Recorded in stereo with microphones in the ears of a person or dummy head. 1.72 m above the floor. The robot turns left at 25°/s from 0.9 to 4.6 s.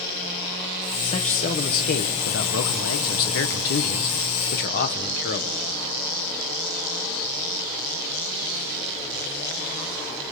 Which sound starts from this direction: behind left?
A man speaking, at 1.0 s.